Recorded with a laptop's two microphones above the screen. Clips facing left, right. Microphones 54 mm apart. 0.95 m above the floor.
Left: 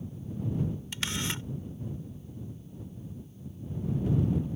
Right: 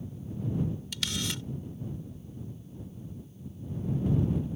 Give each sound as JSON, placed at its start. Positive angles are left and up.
{"t": 0.9, "sound": "a camera shutter", "side_deg": 30}